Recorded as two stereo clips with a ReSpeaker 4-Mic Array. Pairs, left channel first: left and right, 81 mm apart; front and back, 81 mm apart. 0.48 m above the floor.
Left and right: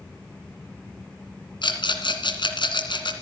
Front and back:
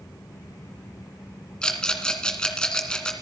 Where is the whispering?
No whispering in this recording.